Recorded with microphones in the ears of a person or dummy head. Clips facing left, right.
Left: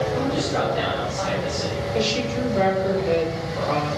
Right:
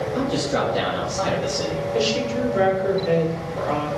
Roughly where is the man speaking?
Right.